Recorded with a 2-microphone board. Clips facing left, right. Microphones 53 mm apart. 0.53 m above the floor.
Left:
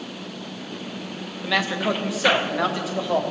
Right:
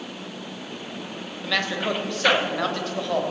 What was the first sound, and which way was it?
A man speaking, 5° left (ahead or behind).